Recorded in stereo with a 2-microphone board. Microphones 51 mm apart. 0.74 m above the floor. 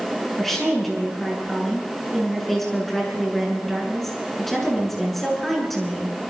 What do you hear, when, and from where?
0.4 s a woman speaking: 5° left (ahead or behind), 8.5 m